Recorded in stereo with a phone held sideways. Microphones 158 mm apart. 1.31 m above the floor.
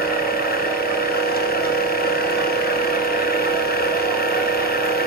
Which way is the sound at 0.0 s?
70° left (ahead or behind).